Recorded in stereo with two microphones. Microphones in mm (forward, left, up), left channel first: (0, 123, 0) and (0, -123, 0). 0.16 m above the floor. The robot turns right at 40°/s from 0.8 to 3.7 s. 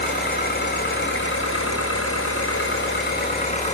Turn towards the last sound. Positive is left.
turn(degrees=155)